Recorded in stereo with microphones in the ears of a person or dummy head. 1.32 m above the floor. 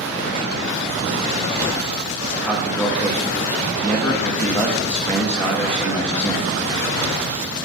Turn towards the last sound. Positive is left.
turn(degrees=5)  # may be behind; listen again after turning